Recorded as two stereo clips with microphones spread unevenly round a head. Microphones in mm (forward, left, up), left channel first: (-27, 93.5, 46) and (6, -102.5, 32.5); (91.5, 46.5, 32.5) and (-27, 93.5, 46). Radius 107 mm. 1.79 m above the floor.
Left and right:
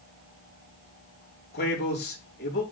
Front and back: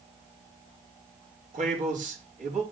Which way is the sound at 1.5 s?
140° left.